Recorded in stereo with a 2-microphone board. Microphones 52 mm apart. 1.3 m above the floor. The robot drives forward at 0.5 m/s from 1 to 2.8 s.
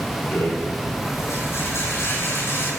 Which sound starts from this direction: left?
A rattle, at 0.3 s.